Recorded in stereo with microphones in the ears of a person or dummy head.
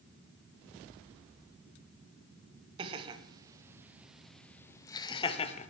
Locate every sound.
2.8 s laughter: 30° right (ahead or behind), 1.5 m; by 5.7 s 40° left (ahead or behind), 1.2 m